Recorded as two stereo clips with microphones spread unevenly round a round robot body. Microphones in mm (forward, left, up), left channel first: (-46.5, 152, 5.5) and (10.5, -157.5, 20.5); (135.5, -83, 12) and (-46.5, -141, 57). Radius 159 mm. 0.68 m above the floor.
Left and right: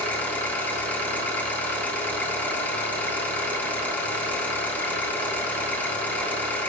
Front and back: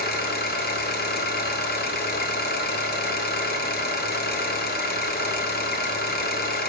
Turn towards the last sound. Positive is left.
turn(degrees=15)